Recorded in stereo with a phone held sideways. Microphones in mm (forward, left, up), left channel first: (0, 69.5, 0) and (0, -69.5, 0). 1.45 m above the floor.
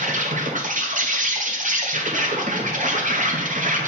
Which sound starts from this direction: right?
An insect, at 0.0 s.